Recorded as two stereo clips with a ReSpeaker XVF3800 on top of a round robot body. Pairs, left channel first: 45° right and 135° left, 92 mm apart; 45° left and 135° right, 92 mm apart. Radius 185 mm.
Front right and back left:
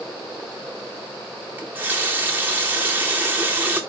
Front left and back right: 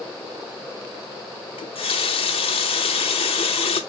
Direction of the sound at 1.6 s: 65° left.